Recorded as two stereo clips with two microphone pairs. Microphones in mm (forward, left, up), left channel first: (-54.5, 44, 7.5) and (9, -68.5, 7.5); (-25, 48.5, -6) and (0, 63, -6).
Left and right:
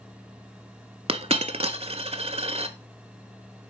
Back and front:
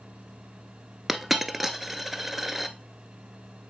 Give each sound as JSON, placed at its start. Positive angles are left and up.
{"t": 1.1, "sound": "a dropped coin", "azimuth_deg": -50, "distance_m": 0.5}